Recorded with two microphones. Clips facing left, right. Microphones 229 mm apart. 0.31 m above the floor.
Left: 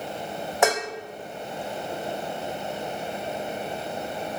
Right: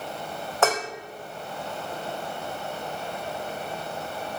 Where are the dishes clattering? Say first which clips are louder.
Left 1 dB; 15° left (ahead or behind), 0.6 m.